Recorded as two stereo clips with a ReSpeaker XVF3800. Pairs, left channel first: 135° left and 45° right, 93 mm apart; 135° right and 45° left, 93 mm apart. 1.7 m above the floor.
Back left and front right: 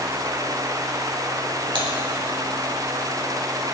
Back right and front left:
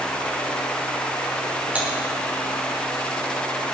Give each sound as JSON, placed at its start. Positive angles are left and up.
{"t": 1.8, "sound": "typing on a keyboard", "azimuth_deg": -30, "distance_m": 3.5}